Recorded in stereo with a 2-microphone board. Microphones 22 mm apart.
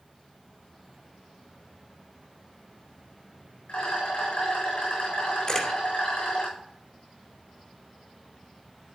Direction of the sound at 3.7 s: 85° left.